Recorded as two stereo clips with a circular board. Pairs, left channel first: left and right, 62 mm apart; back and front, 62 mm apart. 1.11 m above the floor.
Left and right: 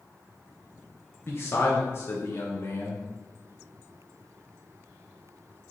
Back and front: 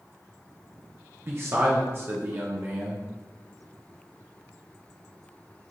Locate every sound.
1.3 s a man speaking: 45° left, 1.1 m